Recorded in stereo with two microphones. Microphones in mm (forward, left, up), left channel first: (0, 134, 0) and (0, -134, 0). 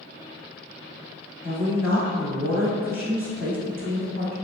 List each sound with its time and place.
1.4 s a woman speaking: 10° right (ahead or behind), 1.1 m